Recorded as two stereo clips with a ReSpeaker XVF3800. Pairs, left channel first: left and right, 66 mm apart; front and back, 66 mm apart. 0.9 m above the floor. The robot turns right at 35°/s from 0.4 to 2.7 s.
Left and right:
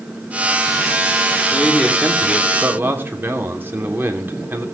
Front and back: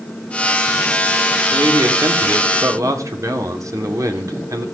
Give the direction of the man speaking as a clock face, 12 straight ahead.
6 o'clock.